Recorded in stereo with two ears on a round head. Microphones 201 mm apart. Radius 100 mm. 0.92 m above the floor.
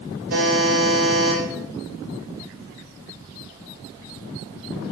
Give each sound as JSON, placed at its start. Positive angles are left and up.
{"t": 0.3, "sound": "a buzzer", "side_deg": -65, "distance_m": 3.5}